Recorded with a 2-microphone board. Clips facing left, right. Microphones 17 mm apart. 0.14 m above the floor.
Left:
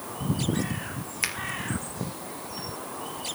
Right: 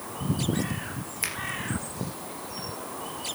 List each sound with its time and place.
1.2 s a finger snap: 15° left (ahead or behind), 3 m